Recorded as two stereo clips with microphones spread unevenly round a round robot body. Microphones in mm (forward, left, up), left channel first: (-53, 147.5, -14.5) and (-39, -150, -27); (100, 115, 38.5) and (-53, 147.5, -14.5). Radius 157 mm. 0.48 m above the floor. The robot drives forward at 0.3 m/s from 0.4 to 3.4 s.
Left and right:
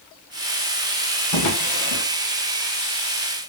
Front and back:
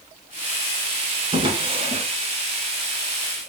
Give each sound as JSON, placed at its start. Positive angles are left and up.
{"t": 1.3, "sound": "a drawer", "azimuth_deg": 105, "distance_m": 1.6}